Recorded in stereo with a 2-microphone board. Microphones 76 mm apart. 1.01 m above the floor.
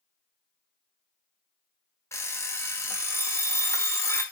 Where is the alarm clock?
40° left (ahead or behind), 0.7 m.